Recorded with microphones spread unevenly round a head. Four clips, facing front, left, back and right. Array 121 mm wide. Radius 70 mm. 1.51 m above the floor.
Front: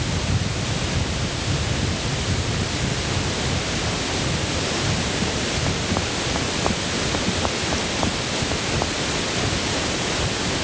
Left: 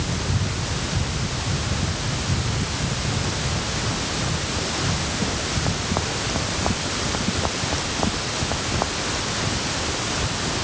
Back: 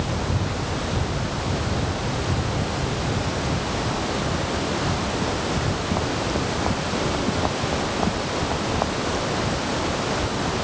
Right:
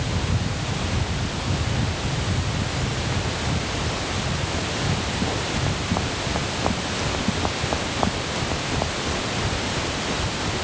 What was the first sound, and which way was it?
Only background noise.